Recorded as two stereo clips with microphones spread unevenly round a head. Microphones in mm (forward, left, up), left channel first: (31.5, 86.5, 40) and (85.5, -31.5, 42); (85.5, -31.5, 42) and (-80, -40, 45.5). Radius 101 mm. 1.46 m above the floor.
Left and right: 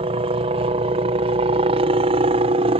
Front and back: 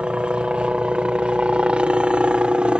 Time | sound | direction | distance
0.0 | a helicopter | 95° right | ?